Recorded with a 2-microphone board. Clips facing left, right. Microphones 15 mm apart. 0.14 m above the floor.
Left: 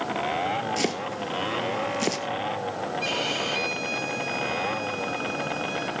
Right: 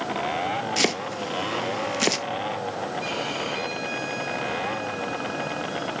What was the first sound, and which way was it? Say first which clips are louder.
Chopping: right 3 dB; 30° right (ahead or behind).